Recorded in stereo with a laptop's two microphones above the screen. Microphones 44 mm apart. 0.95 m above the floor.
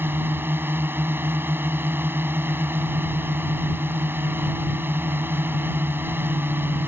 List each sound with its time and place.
0.0 s a drone: 55° right (ahead or behind)